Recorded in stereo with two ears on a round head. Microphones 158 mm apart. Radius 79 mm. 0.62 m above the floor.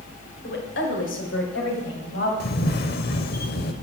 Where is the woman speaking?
65° left (ahead or behind), 2.5 m; by 2.3 s 75° left (ahead or behind), 3.5 m.